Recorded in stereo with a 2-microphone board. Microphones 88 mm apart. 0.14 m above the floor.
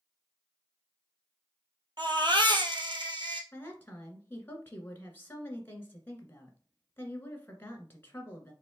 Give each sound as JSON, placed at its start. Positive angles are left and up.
{"t": 2.0, "sound": "a baby crying", "side_deg": -65, "distance_m": 1.2}
{"t": 3.5, "sound": "a woman speaking", "side_deg": 25, "distance_m": 1.7}